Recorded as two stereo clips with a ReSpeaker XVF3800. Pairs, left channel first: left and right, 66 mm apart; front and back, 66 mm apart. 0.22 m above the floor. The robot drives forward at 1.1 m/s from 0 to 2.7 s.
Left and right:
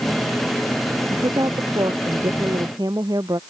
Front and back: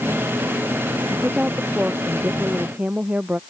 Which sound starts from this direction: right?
A woman speaking, at 1.1 s.